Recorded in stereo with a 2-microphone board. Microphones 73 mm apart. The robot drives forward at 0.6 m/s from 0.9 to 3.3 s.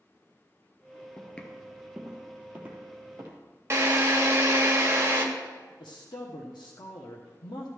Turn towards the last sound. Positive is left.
turn(degrees=90)